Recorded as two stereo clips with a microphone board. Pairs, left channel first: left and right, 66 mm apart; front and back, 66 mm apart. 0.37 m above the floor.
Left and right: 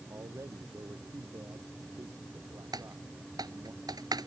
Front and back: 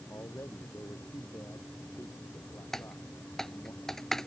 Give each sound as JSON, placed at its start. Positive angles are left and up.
{"t": 0.1, "sound": "a man speaking", "azimuth_deg": -45}
{"t": 2.7, "sound": "typing on a keyboard", "azimuth_deg": -85}